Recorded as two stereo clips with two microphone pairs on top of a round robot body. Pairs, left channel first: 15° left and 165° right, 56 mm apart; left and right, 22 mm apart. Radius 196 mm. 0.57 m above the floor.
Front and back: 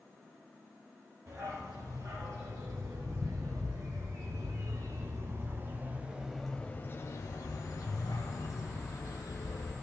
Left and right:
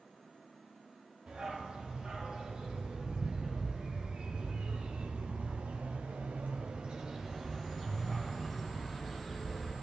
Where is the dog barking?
140° right, 4.5 m; by 9.7 s 15° left, 3 m.